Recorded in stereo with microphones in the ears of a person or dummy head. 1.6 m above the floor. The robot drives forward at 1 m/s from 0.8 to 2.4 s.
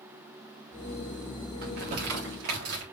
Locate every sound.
1.6 s crumpling: 60° right (ahead or behind), 4 m; by 2.8 s 70° right (ahead or behind), 3.5 m